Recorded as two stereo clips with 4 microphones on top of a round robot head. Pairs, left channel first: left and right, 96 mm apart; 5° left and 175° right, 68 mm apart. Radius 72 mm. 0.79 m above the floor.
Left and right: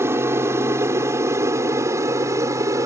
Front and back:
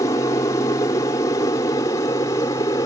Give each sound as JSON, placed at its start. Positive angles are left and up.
{"t": 0.0, "sound": "an aircraft", "azimuth_deg": -30}